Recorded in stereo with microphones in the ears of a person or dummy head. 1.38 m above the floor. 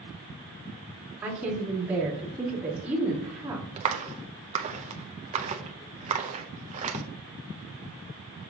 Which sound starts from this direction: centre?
A woman speaking, at 1.2 s.